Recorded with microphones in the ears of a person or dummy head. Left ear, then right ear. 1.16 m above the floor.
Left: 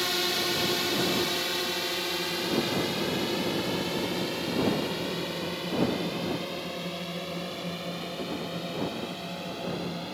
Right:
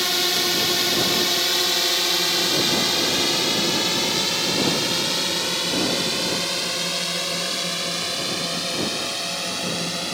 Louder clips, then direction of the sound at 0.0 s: Right 6 dB; 15° right (ahead or behind).